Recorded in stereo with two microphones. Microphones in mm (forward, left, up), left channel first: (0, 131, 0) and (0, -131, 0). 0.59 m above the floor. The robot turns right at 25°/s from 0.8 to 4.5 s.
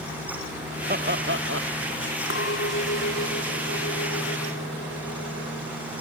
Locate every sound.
0.9 s laughter: 35° right (ahead or behind); by 1.7 s 55° right (ahead or behind)
2.3 s a clink: 50° left; by 5.7 s 105° left